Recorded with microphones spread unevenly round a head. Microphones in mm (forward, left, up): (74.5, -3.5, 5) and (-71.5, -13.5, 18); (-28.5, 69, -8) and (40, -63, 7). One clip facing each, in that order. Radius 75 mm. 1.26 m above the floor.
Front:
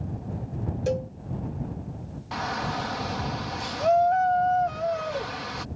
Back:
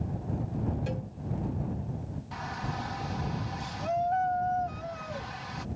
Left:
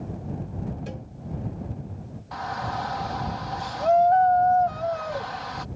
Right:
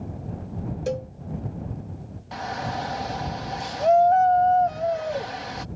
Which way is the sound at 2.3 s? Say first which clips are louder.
Front 8 dB, right 1 dB; straight ahead.